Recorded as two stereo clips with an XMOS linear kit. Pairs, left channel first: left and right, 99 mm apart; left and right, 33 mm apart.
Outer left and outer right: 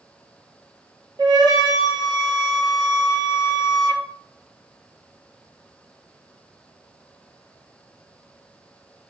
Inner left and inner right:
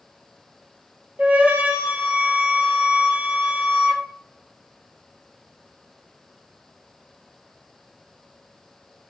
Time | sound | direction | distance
1.2 | a flute | 50° right (ahead or behind) | 0.6 m